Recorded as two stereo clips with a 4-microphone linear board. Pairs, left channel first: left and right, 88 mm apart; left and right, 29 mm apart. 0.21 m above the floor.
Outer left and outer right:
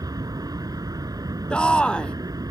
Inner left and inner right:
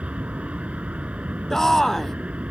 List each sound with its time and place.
0.0 s an aircraft: 45° right (ahead or behind)
1.5 s a shout: 10° left (ahead or behind)